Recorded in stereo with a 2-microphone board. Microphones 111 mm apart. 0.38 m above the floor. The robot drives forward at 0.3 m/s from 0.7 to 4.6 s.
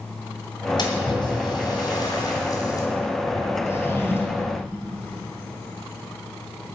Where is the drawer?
25° left (ahead or behind), 1.7 m; by 4.6 s 20° left (ahead or behind), 2.0 m.